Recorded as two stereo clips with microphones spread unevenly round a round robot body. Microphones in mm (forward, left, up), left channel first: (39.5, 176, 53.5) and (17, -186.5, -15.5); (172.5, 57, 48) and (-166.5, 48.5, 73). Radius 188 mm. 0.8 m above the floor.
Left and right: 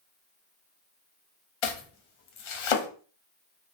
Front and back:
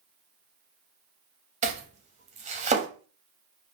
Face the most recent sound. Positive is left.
turn(degrees=110)